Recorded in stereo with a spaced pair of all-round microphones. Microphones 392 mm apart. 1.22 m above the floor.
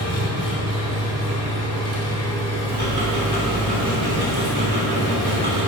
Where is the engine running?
70° right (ahead or behind), 2.5 m.